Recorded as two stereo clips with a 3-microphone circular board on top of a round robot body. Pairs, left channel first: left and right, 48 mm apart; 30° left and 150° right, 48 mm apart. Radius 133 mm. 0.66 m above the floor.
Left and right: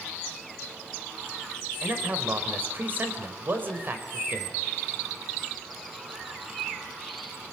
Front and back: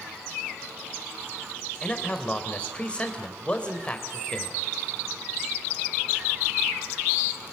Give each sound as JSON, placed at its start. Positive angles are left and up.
{"t": 1.8, "sound": "a man speaking", "azimuth_deg": -40, "distance_m": 3.5}